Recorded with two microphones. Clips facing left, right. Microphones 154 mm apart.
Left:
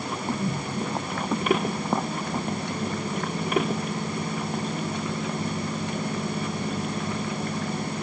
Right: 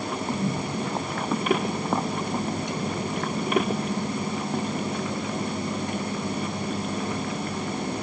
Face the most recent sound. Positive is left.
No sound to turn to.